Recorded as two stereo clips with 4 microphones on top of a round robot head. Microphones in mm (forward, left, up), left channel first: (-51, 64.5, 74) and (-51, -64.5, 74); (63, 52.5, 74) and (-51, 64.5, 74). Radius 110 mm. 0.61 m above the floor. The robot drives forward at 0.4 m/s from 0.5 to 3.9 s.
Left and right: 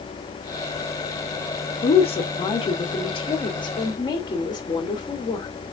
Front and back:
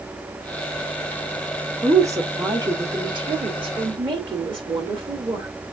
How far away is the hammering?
I don't hear hammering.